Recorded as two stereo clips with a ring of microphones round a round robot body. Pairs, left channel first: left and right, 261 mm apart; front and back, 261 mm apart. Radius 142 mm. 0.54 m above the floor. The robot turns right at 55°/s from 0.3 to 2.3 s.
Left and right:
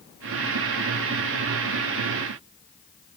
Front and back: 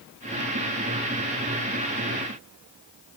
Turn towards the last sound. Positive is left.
No sound to turn to.